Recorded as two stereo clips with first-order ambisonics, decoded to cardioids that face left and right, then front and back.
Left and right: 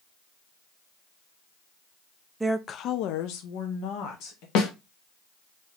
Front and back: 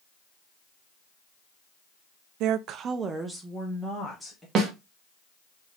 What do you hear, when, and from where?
2.4 s a woman speaking: 170° right, 0.5 m; by 4.5 s 85° left, 2.0 m
4.5 s a snare drum: 125° left, 1.3 m